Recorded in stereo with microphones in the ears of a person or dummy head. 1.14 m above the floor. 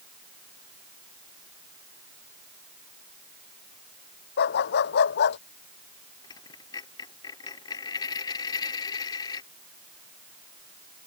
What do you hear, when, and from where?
4.4 s a dog barking: 55° left (ahead or behind)
6.2 s a dropped coin: 20° left (ahead or behind)